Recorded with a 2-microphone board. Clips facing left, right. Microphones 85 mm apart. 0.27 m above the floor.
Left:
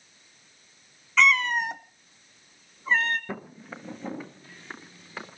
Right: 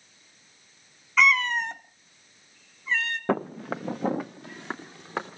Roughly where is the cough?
I don't hear a cough.